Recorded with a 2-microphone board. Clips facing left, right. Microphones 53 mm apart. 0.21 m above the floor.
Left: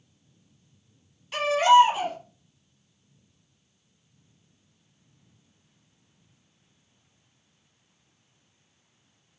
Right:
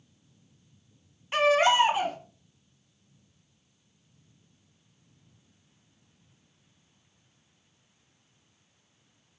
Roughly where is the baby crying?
Right.